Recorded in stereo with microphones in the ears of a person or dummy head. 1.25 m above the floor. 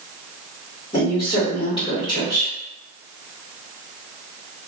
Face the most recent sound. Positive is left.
turn(degrees=30)  # may be behind; listen again after turning